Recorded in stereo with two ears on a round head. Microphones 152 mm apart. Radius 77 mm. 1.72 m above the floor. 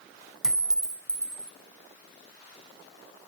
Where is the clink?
5° right (ahead or behind), 0.6 m.